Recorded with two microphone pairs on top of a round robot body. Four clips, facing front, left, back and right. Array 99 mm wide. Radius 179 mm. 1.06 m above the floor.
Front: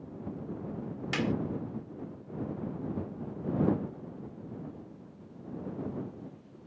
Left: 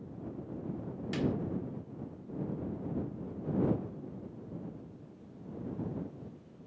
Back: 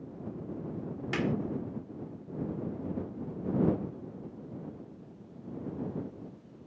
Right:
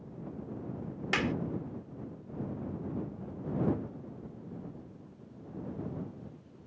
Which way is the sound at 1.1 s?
95° right.